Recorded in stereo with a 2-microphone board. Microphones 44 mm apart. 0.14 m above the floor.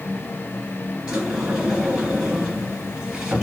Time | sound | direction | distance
1.1 | a sliding door | 15° right (ahead or behind) | 1.8 m